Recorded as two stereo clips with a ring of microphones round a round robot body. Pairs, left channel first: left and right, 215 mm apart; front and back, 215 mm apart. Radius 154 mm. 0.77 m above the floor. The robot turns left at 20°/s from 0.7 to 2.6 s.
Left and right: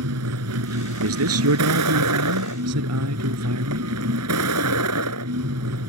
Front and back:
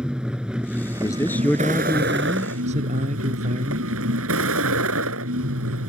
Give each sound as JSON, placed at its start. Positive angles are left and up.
{"t": 0.0, "sound": "a vehicle", "azimuth_deg": -95}
{"t": 1.0, "sound": "a man speaking", "azimuth_deg": -80}